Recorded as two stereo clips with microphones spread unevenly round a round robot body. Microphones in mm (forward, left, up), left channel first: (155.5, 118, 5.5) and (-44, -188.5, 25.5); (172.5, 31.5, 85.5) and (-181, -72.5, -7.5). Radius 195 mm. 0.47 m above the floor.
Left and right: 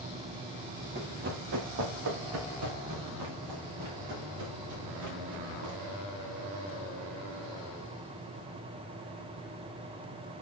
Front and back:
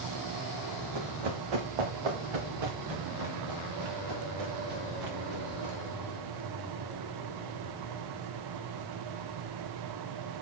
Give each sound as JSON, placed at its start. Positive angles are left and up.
{"t": 0.9, "sound": "running footsteps", "azimuth_deg": 170, "distance_m": 2.5}